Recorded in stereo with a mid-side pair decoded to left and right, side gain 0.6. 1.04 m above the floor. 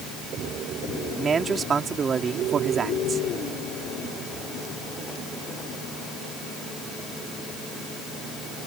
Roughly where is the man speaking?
Ahead right.